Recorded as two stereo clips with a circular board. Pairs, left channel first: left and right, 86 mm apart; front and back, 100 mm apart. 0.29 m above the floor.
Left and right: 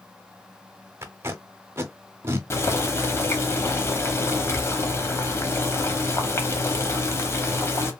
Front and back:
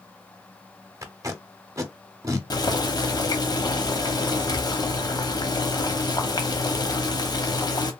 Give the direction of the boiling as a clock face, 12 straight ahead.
11 o'clock.